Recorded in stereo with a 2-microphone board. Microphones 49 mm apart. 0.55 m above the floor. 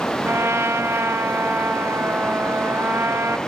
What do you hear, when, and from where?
0.2 s a trumpet: 65° right (ahead or behind), 1.0 m